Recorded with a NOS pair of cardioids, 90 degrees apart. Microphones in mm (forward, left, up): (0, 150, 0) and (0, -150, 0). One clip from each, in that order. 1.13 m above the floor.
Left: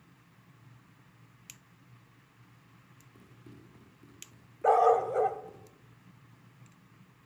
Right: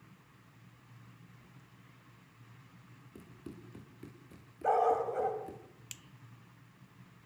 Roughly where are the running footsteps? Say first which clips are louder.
Right 6 dB; ahead right.